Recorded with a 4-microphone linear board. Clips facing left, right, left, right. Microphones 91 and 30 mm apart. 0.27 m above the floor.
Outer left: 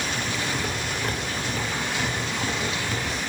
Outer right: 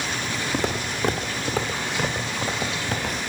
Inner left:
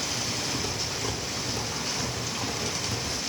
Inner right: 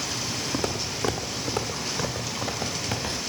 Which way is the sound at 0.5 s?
75° right (ahead or behind).